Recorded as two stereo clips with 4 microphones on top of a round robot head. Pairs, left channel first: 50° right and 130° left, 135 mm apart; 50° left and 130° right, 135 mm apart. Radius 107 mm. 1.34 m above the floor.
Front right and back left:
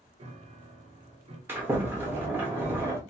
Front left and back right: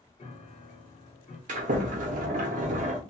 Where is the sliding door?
155° right, 0.6 m.